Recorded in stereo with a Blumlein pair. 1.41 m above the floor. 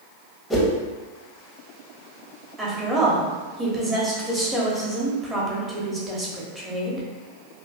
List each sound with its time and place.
0.5 s a whoosh: 10° left, 0.8 m
2.6 s a woman speaking: 10° right, 1.1 m